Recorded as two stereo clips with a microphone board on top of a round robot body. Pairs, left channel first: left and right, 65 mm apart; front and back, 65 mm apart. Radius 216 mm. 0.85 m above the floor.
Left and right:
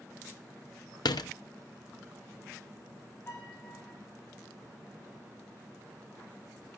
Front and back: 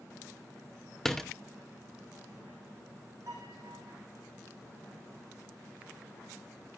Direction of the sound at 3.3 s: 145° left.